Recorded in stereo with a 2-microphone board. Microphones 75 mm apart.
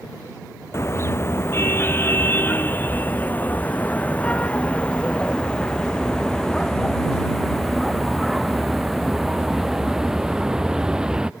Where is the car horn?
35° left (ahead or behind); by 11.3 s 10° right (ahead or behind).